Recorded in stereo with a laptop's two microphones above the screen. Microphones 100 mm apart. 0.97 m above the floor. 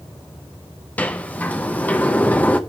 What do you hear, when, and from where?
1.0 s a sliding door: 15° left (ahead or behind), 0.7 m